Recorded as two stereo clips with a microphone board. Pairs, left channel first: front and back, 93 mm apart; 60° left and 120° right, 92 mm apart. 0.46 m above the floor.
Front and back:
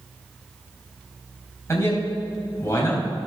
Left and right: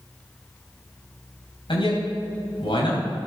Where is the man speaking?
60° left, 3 m.